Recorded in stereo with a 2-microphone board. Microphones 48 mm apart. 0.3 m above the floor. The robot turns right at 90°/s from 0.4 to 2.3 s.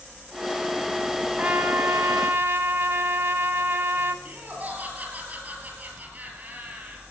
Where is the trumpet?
150° right, 0.8 m; by 4.2 s 65° right, 0.8 m.